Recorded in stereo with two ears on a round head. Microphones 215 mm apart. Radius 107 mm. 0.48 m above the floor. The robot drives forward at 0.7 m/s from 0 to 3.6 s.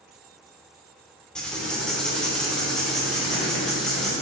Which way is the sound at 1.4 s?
5° left (ahead or behind).